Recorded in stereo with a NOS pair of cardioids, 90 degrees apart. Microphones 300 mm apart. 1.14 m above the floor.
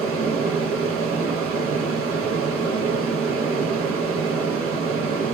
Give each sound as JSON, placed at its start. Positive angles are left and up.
{"t": 0.0, "sound": "a fan", "azimuth_deg": -50, "distance_m": 0.9}